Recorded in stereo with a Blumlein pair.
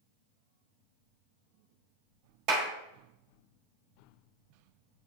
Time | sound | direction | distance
2.5 | a clap | 35° right | 1.0 m